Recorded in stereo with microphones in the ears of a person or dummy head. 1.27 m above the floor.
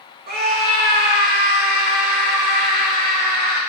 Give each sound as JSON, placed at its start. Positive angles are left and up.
{"t": 0.3, "sound": "a scream", "side_deg": -45, "distance_m": 2.0}